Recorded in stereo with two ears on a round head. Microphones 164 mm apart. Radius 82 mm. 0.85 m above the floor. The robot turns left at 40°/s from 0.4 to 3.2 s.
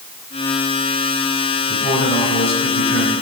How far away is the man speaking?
About 6.5 m.